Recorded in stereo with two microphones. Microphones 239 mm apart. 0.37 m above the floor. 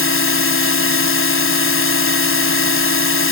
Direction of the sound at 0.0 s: 65° left (ahead or behind).